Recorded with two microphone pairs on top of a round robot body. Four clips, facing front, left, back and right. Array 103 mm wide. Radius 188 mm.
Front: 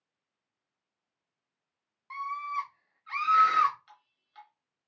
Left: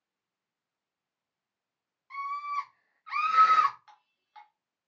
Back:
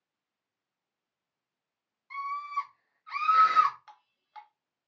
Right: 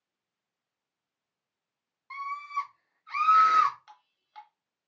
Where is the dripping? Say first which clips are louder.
Right 2 dB, back 6 dB; 170° right, 0.7 m.